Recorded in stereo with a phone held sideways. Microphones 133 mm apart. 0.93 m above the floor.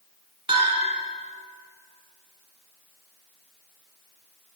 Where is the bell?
40° right (ahead or behind), 2 m.